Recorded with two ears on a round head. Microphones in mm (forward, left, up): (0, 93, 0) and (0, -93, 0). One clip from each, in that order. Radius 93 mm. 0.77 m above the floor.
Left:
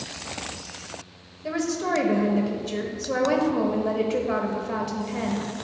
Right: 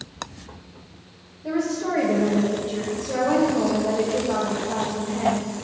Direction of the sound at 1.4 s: 40° left (ahead or behind).